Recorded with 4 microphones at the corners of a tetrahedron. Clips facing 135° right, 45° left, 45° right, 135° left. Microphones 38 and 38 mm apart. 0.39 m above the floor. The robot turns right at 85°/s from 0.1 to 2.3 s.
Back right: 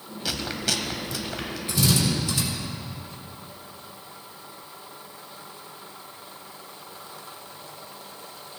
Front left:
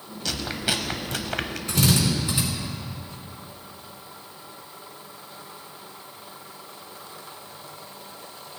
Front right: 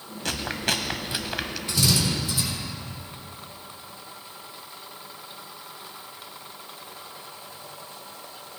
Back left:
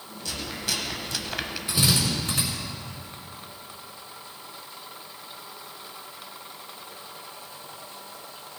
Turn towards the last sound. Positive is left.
turn(degrees=115)